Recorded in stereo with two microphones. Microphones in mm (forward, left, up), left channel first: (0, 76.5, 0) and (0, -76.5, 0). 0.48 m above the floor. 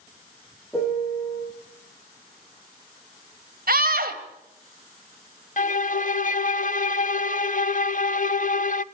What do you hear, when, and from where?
0.7 s a piano: 15° left (ahead or behind), 7 m
3.7 s a scream: 70° right (ahead or behind), 2 m
5.6 s a violin: 55° left (ahead or behind), 0.5 m